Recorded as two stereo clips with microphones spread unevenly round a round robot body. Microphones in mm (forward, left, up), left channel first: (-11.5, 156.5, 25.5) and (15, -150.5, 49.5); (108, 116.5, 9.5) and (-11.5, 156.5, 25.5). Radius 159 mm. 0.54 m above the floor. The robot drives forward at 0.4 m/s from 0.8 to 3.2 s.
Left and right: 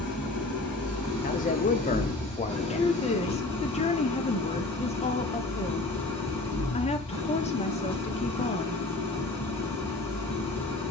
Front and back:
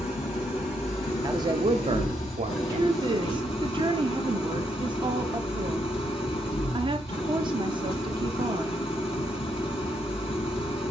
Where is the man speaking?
110° left, 0.7 m; by 3.5 s 160° left, 1.1 m.